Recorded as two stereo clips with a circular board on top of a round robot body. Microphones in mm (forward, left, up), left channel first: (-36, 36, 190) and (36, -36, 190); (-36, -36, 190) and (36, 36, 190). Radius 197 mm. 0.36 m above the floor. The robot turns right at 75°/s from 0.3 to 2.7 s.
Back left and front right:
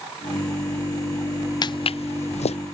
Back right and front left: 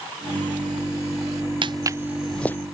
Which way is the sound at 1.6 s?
85° left.